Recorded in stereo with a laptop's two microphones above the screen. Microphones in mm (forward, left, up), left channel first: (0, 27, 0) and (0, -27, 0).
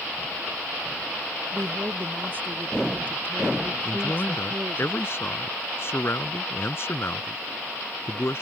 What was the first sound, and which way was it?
A woman speaking, 40° right (ahead or behind).